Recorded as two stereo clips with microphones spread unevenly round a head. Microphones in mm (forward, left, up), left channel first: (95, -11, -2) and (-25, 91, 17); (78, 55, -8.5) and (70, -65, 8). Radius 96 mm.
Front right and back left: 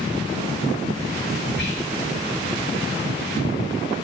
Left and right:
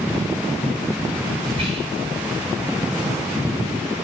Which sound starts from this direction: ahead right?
Whispering, at 1.6 s.